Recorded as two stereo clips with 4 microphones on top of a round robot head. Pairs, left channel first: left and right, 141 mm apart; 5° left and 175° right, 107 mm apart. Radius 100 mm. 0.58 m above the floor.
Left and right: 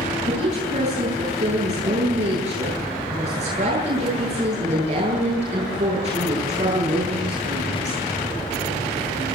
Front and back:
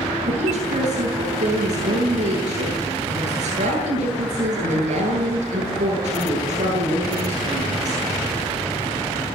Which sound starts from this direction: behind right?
A woman speaking, at 0.3 s.